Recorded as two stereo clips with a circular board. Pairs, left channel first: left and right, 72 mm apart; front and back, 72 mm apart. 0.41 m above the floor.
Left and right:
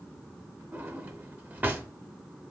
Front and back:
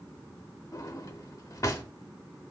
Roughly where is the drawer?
Ahead right.